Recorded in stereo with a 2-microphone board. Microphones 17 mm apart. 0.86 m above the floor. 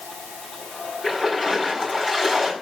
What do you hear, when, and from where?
1.0 s a splash: 25° right (ahead or behind), 6.5 m